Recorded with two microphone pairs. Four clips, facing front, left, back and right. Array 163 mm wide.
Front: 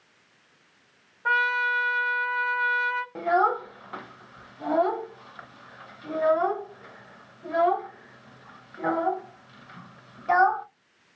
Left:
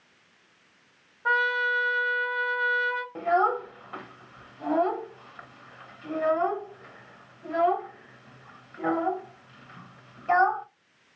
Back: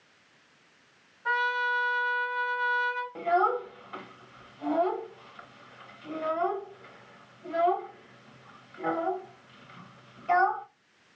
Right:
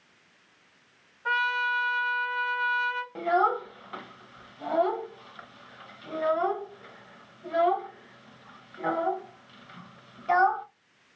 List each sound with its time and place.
1.2 s a trumpet: 30° left, 1.0 m
3.1 s a child speaking: 15° right, 0.6 m